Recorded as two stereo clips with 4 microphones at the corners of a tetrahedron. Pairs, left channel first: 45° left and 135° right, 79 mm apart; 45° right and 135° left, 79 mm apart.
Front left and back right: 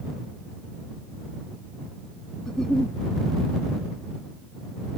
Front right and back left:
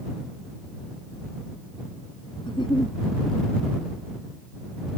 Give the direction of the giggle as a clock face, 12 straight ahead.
1 o'clock.